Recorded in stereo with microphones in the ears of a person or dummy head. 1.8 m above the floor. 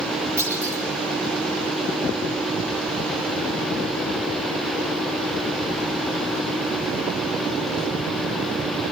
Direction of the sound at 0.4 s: 15° right (ahead or behind).